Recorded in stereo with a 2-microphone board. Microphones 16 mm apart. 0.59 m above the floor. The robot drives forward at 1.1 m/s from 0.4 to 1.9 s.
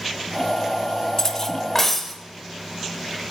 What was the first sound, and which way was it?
Cutlery clinking, 35° left (ahead or behind).